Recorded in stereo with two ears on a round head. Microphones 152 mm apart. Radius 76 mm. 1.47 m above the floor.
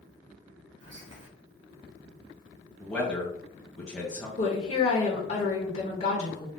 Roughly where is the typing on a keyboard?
No typing on a keyboard in this recording.